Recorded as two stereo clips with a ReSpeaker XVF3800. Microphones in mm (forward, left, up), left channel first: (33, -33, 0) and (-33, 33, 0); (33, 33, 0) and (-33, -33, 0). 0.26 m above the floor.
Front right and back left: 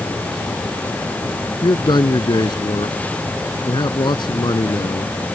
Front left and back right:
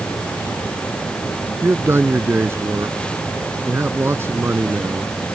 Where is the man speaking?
75° right.